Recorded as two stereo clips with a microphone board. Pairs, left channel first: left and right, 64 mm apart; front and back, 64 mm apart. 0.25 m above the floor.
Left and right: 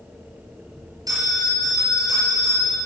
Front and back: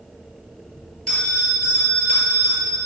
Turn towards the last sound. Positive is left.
turn(degrees=-80)